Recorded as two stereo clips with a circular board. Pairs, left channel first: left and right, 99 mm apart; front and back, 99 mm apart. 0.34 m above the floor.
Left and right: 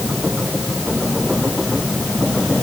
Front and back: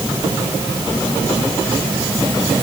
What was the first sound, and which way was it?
Only background noise.